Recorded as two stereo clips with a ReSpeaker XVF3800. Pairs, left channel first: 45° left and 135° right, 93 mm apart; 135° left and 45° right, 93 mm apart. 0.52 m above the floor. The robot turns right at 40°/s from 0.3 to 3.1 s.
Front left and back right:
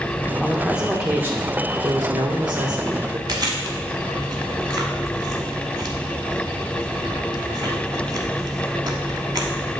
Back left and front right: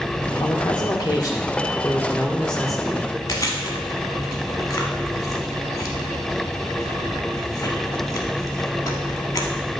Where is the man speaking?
130° left, 1.0 m; by 3.2 s 120° right, 1.0 m.